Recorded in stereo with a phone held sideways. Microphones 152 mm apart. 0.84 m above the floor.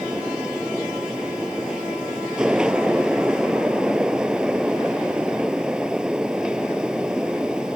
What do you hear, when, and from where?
0.0 s a fan: 5° right (ahead or behind)